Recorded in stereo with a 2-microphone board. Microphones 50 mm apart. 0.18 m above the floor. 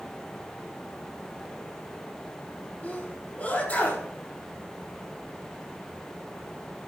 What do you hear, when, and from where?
2.8 s a sneeze: 30° left (ahead or behind), 6.5 m